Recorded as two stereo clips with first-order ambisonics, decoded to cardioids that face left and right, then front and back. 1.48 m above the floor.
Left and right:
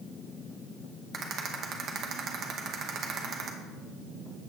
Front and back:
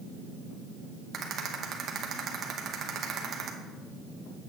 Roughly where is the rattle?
Behind right.